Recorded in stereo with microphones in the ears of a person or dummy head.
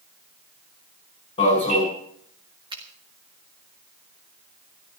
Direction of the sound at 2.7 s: 25° right (ahead or behind).